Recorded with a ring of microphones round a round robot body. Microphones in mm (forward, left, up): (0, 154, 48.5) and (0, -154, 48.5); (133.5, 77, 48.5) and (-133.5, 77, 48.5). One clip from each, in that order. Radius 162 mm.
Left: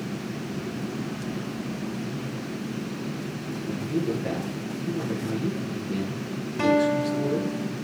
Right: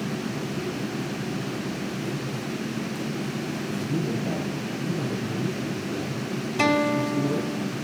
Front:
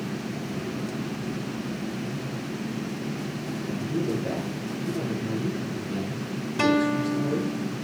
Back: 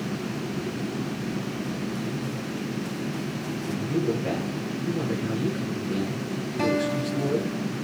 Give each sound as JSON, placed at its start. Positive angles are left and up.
{"t": 3.6, "sound": "a man speaking", "azimuth_deg": 110, "distance_m": 7.0}
{"t": 6.6, "sound": "a guitar", "azimuth_deg": -40, "distance_m": 2.5}